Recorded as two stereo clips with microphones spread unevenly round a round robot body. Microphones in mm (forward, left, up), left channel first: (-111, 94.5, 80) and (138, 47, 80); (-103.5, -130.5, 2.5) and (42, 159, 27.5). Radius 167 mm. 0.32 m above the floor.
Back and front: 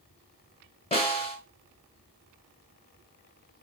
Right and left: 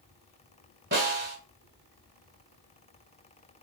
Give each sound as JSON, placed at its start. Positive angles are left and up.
{"t": 0.9, "sound": "a snare drum", "azimuth_deg": 110, "distance_m": 2.0}